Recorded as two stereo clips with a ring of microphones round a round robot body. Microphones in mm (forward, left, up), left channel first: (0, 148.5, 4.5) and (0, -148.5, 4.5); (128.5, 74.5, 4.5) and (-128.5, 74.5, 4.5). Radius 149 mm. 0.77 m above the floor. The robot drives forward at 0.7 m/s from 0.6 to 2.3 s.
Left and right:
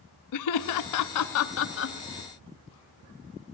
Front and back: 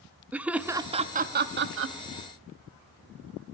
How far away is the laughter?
About 0.9 m.